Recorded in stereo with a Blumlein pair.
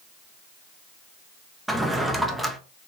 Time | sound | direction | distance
1.7 | a drawer | straight ahead | 0.5 m